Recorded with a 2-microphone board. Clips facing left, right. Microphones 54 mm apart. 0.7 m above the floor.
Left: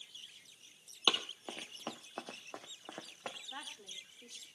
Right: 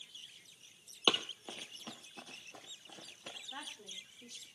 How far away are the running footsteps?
About 1.1 m.